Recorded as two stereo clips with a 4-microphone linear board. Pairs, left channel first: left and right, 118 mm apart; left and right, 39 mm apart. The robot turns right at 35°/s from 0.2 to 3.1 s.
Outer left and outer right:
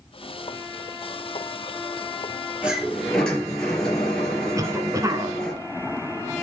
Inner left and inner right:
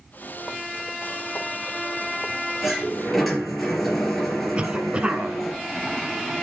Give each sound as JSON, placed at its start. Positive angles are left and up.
{"t": 2.6, "sound": "a sliding door", "side_deg": -10, "distance_m": 3.0}
{"t": 4.5, "sound": "a cough", "side_deg": -30, "distance_m": 1.2}